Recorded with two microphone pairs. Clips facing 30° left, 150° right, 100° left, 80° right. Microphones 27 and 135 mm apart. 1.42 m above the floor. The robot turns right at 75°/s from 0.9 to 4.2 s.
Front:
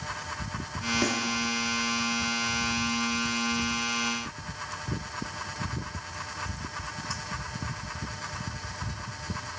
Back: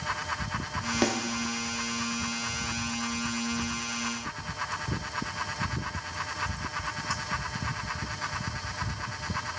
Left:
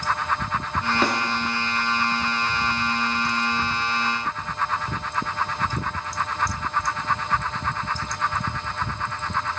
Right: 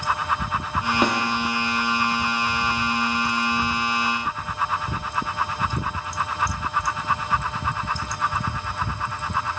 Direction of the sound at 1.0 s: 130° right.